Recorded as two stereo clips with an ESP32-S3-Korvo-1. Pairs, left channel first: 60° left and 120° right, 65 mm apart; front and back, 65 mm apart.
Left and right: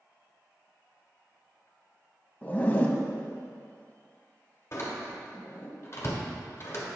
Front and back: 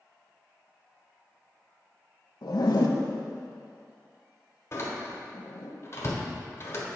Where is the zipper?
5° right, 0.7 m.